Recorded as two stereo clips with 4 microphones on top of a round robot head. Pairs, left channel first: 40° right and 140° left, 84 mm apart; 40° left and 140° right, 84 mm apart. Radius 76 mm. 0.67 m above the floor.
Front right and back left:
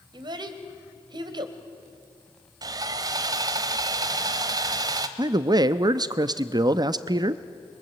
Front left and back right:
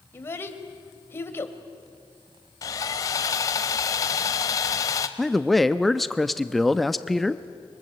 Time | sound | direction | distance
0.1 | a child speaking | 105° left | 2 m
2.6 | sawing | 95° left | 0.9 m
5.2 | a man speaking | 125° left | 0.7 m